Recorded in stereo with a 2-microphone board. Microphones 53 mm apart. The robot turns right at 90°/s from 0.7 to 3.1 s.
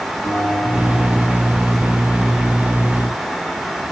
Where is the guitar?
60° left, 7.5 m; by 1.8 s 160° left, 7.5 m.